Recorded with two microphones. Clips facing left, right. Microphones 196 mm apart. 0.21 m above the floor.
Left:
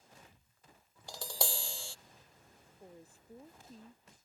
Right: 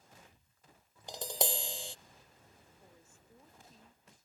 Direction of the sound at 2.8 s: 35° left (ahead or behind).